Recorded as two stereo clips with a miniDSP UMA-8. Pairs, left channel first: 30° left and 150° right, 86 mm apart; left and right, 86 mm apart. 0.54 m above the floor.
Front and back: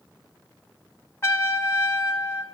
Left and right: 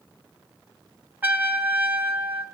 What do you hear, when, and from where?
1.2 s a trumpet: 25° right, 1.6 m